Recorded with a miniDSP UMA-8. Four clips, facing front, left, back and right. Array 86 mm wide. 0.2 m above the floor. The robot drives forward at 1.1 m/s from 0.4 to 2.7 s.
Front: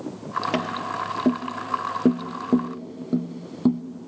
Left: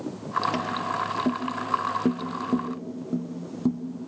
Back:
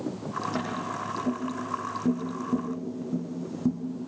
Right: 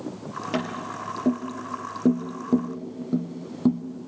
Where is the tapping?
5° right, 3.5 m; by 3.8 s 20° right, 1.2 m.